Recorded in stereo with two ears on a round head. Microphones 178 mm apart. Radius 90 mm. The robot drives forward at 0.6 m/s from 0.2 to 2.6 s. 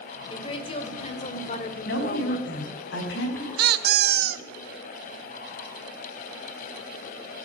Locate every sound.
0.3 s a woman speaking: 25° left (ahead or behind), 2.5 m; by 2.5 s 45° left (ahead or behind), 1.5 m
1.9 s a woman speaking: 55° left (ahead or behind), 5 m; by 3.5 s 60° left (ahead or behind), 5 m
3.6 s a squeak: 50° right (ahead or behind), 0.8 m